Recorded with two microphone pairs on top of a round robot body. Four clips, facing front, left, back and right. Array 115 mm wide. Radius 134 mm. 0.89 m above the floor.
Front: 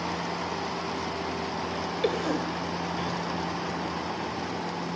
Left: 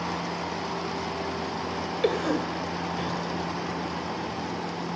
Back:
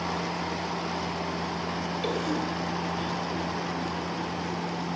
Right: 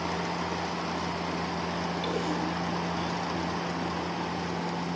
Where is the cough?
70° left, 3.5 m.